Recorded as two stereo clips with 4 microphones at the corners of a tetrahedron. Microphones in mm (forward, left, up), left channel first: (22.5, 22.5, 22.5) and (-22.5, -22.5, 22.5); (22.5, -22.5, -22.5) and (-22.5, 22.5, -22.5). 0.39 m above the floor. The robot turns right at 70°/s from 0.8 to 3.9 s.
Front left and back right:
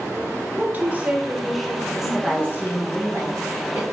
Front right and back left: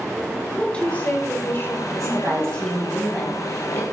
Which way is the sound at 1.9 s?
135° left.